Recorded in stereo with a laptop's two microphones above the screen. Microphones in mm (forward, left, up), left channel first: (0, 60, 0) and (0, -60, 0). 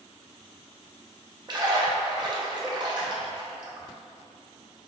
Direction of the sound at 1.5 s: 35° right (ahead or behind).